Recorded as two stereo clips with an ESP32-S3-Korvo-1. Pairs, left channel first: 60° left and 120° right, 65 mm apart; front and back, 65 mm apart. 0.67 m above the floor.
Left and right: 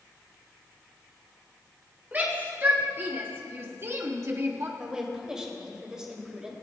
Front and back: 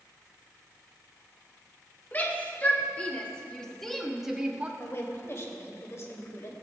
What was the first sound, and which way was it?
A shout, 60° right.